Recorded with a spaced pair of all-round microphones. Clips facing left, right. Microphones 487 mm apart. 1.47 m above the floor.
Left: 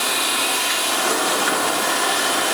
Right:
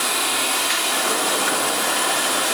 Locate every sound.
Only background noise.